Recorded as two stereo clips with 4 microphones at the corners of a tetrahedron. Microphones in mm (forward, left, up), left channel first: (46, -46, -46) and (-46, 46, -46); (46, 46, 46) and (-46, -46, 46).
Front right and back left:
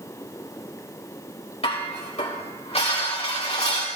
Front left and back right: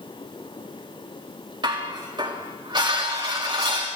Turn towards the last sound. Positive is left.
turn(degrees=-80)